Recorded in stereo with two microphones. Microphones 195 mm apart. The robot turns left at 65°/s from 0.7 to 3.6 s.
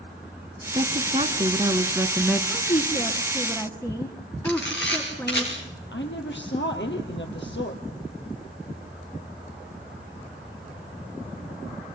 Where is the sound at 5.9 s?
70° left (ahead or behind), 4 m.